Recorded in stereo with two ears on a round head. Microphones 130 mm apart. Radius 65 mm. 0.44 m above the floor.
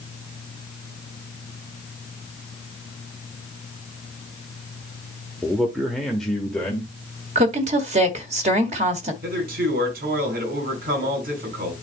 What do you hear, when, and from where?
5.4 s a man speaking: 5° right (ahead or behind), 1.0 m; by 6.9 s 10° left (ahead or behind), 1.6 m
7.3 s a woman speaking: 50° right (ahead or behind), 1.5 m
9.2 s a man speaking: 70° right (ahead or behind), 4.5 m